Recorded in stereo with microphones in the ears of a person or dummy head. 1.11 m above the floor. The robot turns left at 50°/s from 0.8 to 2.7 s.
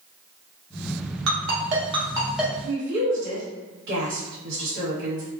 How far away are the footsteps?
I don't hear footsteps.